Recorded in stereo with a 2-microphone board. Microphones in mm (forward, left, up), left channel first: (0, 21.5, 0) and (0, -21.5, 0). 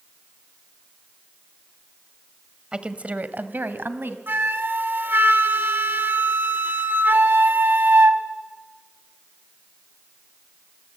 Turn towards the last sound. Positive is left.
turn(degrees=-55)  # may be behind; listen again after turning